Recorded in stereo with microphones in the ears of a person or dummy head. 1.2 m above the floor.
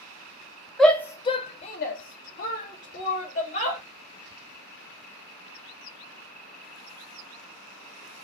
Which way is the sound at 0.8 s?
Centre (ahead or behind).